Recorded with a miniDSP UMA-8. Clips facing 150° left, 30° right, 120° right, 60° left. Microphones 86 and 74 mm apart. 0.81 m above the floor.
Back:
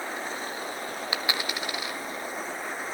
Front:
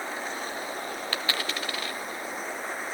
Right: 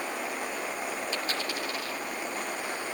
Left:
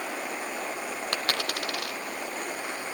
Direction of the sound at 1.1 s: 75° left.